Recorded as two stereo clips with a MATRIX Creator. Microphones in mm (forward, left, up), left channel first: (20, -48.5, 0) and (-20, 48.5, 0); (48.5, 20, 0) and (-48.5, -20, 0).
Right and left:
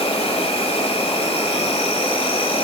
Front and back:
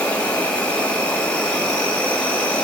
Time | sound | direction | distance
0.0 | an insect | 55° right | 1.7 m